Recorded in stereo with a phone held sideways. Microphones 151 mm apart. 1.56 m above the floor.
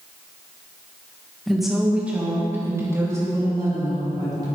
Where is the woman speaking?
Centre (ahead or behind), 2 m; by 4.5 s 25° right (ahead or behind), 5 m.